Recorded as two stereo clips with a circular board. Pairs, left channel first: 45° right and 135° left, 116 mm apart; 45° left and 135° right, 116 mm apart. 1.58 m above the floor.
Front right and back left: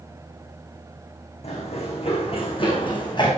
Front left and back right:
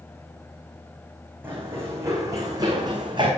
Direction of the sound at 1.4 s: 65° right.